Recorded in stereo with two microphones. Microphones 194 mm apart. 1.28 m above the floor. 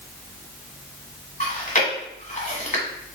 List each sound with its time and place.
1.4 s chewing: 40° left (ahead or behind), 1.4 m